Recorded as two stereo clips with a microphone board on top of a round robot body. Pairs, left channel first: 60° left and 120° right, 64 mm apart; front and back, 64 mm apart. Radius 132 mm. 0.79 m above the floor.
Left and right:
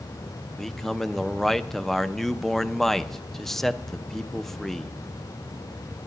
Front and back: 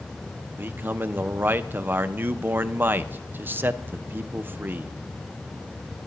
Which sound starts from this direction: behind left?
A man speaking, at 0.6 s.